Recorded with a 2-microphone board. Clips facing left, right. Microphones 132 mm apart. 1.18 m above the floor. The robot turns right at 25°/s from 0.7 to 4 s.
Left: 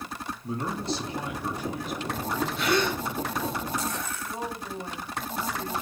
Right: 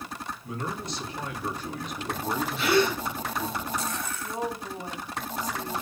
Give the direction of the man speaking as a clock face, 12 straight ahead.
7 o'clock.